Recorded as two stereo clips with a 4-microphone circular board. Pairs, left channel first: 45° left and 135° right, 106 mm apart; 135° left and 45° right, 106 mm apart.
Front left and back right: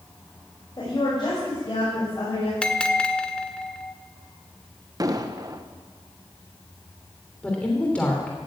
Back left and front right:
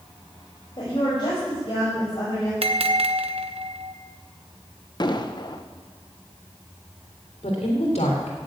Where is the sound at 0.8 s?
95° left, 6 m; by 2.5 s 85° left, 6.5 m.